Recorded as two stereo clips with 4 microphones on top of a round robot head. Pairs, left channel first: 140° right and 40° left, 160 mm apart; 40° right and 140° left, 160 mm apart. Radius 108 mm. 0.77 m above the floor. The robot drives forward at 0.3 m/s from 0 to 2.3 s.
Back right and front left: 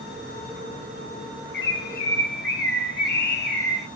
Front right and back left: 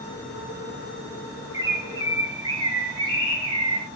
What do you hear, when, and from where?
1.5 s a bird: 150° right, 1.0 m; by 3.9 s 155° right, 1.2 m